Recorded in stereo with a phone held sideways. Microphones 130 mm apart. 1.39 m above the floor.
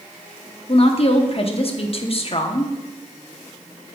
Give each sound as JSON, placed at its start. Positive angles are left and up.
{"t": 0.7, "sound": "a woman speaking", "side_deg": 50, "distance_m": 0.9}